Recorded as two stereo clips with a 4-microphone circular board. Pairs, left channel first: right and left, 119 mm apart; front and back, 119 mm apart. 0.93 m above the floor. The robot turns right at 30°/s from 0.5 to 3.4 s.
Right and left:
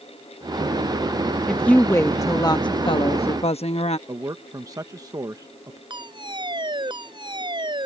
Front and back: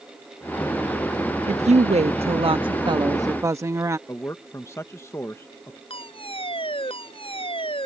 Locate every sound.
1.5 s a woman speaking: 175° right; by 4.0 s 115° right
4.1 s a man speaking: 50° left
5.9 s a fire alarm: 40° left